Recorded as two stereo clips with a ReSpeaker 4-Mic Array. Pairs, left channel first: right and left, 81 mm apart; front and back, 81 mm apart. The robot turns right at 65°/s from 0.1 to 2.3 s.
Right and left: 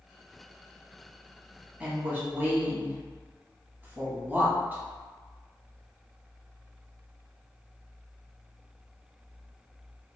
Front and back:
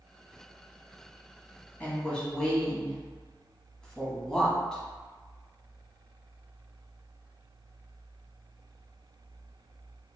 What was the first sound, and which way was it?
A woman speaking, 35° left.